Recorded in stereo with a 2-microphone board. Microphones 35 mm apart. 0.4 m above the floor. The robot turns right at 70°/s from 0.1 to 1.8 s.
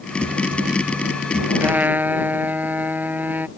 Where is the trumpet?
75° right (ahead or behind); by 3.5 s 60° right (ahead or behind).